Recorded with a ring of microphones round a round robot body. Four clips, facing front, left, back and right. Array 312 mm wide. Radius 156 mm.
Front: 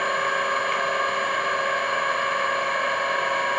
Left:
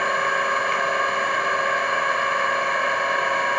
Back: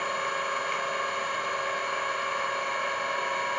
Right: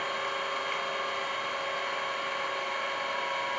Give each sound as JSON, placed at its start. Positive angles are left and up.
{"t": 0.0, "sound": "an engine running", "azimuth_deg": 65, "distance_m": 0.9}